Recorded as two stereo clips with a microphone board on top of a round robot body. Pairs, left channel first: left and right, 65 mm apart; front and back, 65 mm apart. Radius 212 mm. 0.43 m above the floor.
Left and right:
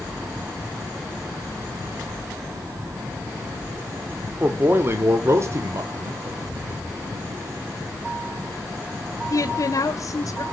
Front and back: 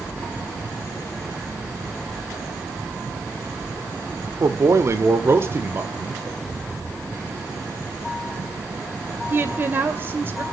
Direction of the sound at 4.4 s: 150° right.